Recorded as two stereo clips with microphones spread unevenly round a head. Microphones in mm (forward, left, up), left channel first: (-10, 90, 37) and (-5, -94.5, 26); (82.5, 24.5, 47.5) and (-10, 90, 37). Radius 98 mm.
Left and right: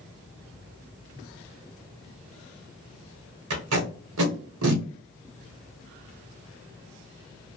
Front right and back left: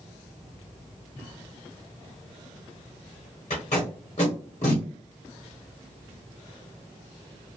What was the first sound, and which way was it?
Tape being pulled, 90° right.